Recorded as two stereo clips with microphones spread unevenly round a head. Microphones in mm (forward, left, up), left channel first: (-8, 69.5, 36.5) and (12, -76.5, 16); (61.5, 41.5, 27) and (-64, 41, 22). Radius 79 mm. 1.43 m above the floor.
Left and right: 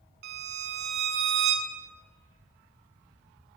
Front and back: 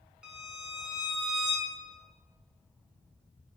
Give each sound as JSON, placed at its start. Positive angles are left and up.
{"t": 0.2, "sound": "a violin", "azimuth_deg": -95, "distance_m": 1.6}